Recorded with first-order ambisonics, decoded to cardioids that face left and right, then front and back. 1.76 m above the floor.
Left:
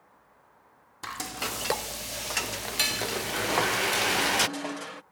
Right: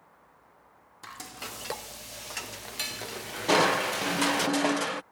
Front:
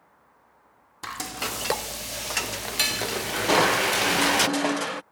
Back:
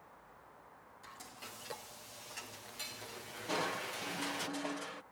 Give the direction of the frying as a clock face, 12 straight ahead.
11 o'clock.